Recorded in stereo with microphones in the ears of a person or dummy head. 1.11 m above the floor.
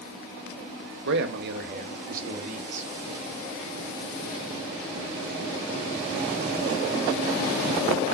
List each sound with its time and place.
1.1 s a man speaking: 70° right (ahead or behind), 1.1 m; by 2.9 s 45° right (ahead or behind), 1.8 m